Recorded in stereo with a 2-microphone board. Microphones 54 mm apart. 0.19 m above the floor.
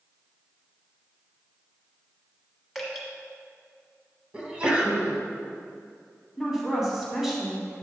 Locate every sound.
2.8 s dripping: centre (ahead or behind), 1.5 m
4.3 s a sneeze: 20° right (ahead or behind), 1.0 m
6.4 s a woman speaking: 5° right (ahead or behind), 1.5 m